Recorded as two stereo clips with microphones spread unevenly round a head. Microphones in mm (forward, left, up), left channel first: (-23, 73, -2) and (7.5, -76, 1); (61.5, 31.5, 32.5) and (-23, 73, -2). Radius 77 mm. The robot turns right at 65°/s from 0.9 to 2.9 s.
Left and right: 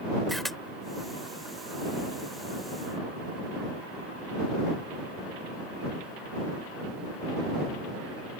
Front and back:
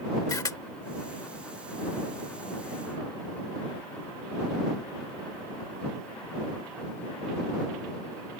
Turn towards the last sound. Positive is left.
turn(degrees=140)